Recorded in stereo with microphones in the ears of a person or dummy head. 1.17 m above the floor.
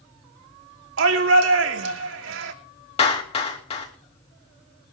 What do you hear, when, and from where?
1.0 s a shout: 65° right (ahead or behind), 2.5 m
3.0 s a clap: 40° left (ahead or behind), 2.5 m